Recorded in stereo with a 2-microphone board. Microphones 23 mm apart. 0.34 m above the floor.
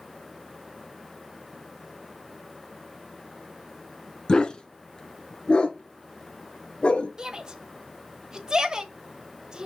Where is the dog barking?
30° left (ahead or behind), 1.2 m; by 7.1 s 50° left (ahead or behind), 2.5 m.